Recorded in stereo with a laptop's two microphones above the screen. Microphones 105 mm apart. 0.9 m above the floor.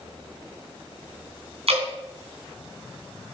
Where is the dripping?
70° right (ahead or behind), 3 m.